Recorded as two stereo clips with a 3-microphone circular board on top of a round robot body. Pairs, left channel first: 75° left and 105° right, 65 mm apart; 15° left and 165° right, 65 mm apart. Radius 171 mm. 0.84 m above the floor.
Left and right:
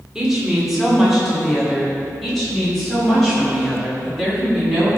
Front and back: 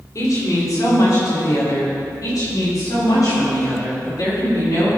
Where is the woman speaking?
25° right, 2.5 m; by 4.9 s 10° right, 7 m.